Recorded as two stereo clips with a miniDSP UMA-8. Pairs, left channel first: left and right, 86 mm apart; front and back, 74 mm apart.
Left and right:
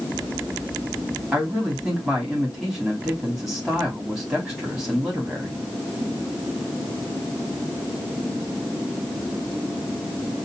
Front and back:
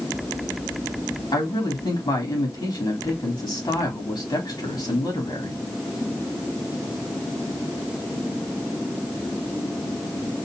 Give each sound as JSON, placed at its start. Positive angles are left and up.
{"t": 1.3, "sound": "a man speaking", "azimuth_deg": -10, "distance_m": 3.0}